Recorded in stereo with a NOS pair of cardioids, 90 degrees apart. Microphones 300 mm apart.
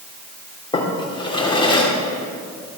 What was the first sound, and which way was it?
A drawer, 15° left.